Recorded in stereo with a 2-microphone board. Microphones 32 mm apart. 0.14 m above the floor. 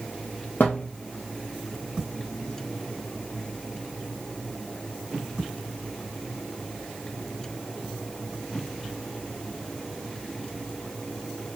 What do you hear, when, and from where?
0.6 s a thud: 75° left (ahead or behind), 2.5 m